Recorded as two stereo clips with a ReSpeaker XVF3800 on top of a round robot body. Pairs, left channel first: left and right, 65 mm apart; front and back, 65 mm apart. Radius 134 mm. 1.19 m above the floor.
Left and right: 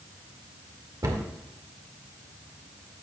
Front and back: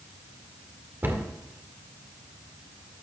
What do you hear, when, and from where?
1.0 s a cupboard door: 120° right, 1.9 m